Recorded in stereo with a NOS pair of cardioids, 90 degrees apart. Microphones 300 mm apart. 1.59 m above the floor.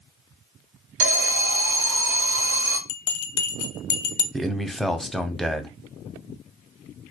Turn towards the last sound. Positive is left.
turn(degrees=0)